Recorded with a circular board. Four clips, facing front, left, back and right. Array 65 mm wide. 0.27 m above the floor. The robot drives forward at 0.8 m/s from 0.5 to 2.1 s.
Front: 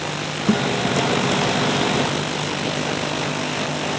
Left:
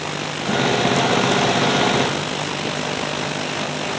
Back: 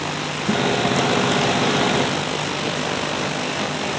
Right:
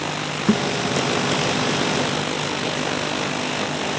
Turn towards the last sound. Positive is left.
turn(degrees=-115)